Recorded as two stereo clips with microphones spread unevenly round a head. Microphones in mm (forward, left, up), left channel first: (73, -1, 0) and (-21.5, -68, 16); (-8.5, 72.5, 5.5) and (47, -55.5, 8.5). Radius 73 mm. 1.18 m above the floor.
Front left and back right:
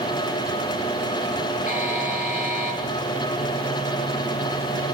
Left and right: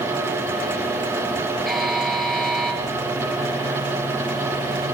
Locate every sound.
1.7 s a buzzer: 25° left, 8 m